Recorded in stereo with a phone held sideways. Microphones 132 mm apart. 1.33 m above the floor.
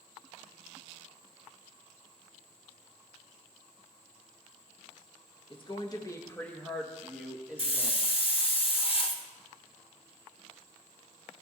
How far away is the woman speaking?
About 1.4 m.